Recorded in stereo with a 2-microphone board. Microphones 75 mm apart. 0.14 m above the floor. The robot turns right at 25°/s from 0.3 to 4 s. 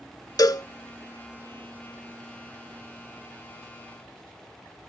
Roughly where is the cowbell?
Left.